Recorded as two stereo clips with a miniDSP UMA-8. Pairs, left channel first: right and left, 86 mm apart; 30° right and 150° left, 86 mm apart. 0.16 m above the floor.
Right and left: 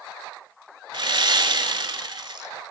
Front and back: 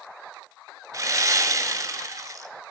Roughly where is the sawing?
Left.